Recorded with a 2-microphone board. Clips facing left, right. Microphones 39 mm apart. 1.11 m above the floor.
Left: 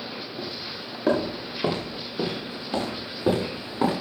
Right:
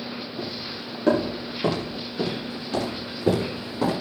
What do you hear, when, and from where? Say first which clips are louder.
0.4 s footsteps: right 2 dB; 5° left (ahead or behind), 6 m; by 3.9 s 30° left (ahead or behind), 9.5 m